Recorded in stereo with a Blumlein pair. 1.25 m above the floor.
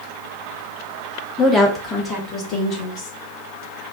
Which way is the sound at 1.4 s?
10° left.